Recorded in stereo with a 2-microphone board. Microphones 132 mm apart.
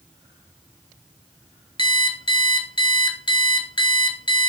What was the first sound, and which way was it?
An alarm clock, 40° left (ahead or behind).